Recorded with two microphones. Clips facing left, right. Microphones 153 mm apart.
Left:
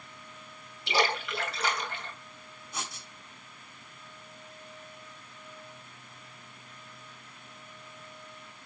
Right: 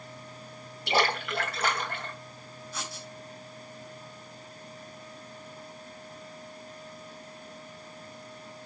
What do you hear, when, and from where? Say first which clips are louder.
0.9 s a splash: right 2 dB; 55° right (ahead or behind), 2.5 m
2.7 s writing: even; 20° left (ahead or behind), 3 m